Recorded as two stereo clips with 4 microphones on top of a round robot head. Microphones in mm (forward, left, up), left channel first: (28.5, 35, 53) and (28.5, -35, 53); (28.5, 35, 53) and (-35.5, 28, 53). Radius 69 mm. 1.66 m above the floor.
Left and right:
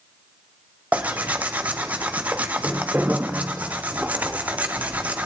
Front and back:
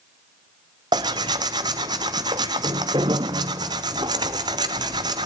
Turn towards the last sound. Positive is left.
turn(degrees=-165)